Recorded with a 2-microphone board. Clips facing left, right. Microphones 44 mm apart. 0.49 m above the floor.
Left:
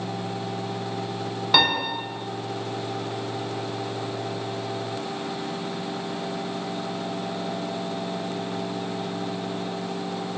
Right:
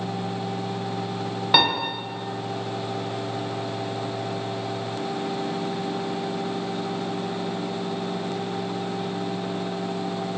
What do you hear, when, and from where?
1.5 s a piano: 10° right (ahead or behind), 0.9 m